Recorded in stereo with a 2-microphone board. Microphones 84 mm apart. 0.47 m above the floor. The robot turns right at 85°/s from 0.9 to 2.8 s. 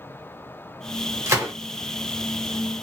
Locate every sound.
1.3 s a gunshot: 35° right (ahead or behind), 1.3 m; by 1.5 s 40° right (ahead or behind), 1.3 m